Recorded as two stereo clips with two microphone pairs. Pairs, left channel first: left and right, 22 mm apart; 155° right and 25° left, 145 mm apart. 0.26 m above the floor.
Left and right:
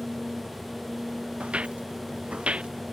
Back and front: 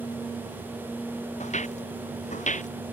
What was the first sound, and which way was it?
Footsteps, 120° right.